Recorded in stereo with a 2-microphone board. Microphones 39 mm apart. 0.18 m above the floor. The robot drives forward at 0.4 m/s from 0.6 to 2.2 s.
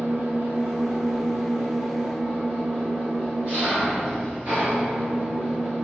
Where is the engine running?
60° right (ahead or behind), 0.9 m; by 5.8 s 40° right (ahead or behind), 1.2 m.